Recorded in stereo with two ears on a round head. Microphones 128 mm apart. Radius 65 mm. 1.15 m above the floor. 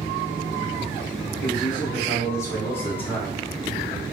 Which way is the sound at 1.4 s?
25° left (ahead or behind).